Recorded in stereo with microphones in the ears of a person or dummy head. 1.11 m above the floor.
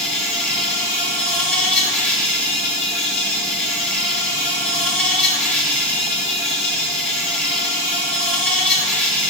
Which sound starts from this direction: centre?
An insect, at 0.0 s.